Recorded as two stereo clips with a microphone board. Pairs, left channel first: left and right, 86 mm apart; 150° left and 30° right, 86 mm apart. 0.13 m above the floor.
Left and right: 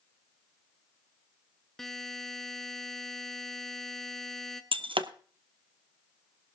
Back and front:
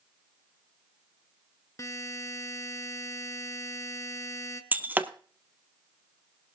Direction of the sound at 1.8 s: 175° left.